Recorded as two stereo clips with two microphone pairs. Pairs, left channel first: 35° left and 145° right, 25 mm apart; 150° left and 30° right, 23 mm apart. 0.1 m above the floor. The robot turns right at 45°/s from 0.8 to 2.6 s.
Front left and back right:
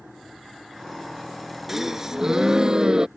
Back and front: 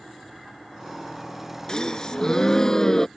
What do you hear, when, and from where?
1.7 s a gasp: 145° left; by 3.1 s 175° right